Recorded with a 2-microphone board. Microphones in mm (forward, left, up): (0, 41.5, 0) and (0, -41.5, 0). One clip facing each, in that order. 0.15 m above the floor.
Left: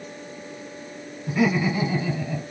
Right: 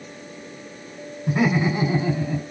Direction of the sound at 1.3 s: 45° right (ahead or behind).